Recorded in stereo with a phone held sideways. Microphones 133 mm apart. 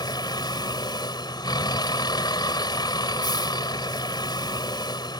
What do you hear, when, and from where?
0.0 s a vehicle: 30° left (ahead or behind)